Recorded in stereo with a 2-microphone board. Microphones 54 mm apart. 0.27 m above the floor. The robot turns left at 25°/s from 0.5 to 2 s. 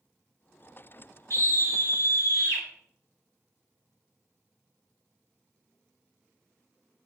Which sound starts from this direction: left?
A scream, at 1.3 s.